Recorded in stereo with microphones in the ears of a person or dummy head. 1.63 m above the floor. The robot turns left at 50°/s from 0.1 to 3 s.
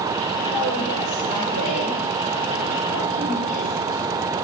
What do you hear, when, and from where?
0.5 s a woman speaking: 55° right, 6.5 m; by 4.0 s 175° left, 6.5 m